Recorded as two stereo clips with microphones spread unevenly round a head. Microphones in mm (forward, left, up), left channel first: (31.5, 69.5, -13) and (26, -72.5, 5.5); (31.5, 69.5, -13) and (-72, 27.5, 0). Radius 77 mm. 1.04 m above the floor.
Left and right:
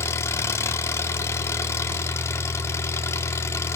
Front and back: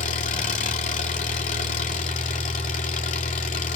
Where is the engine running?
15° left, 2 m.